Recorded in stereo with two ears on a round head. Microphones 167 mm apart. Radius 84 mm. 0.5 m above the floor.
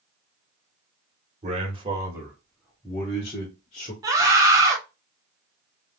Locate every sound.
1.4 s a man speaking: 35° right (ahead or behind), 1.6 m; by 3.9 s 40° left (ahead or behind), 2 m
4.0 s a scream: 20° right (ahead or behind), 1.3 m